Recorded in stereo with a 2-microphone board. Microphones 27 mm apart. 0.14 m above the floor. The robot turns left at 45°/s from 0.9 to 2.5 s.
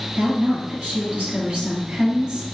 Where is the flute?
I don't hear a flute.